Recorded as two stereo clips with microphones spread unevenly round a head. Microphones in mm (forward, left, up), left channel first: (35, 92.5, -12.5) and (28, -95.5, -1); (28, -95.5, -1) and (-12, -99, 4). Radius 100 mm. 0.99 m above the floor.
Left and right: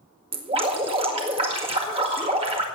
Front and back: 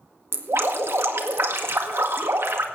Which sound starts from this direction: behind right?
Dripping, at 0.3 s.